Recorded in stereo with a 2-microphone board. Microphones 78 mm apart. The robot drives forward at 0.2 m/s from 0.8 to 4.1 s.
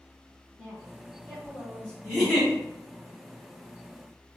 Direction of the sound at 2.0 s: 5° right (ahead or behind).